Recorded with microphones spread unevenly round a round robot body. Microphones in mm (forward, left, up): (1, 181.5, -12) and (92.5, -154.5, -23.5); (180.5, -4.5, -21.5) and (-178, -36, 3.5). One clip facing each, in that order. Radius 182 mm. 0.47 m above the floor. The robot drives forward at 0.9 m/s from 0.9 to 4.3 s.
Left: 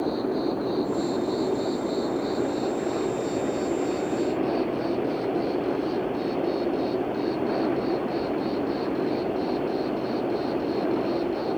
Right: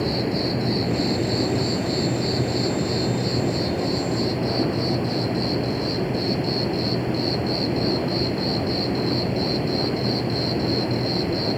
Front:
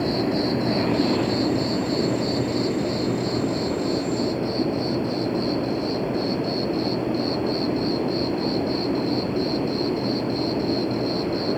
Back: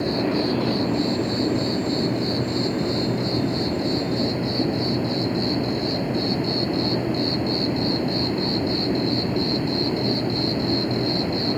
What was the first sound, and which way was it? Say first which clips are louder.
An insect: right 1 dB, even; 85° right.